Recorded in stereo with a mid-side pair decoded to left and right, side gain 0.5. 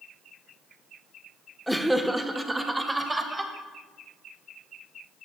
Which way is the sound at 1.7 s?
Straight ahead.